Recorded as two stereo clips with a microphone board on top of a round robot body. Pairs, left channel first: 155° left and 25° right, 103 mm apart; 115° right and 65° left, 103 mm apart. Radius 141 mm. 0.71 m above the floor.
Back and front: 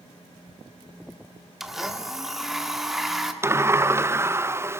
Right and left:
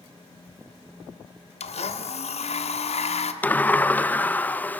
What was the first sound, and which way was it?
A blender, 110° right.